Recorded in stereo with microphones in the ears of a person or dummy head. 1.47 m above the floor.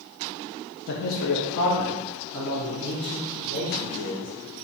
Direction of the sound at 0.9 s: 55° left (ahead or behind).